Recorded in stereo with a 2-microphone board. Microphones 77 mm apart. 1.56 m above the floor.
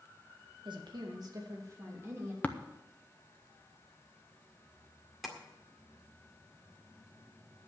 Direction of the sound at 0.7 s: 70° right (ahead or behind).